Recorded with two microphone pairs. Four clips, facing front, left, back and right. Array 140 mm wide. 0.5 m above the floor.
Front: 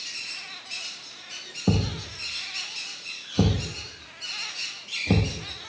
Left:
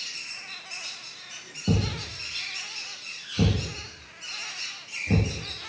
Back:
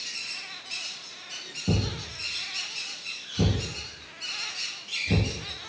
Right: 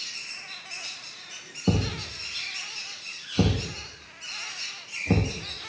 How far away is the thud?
About 5.5 m.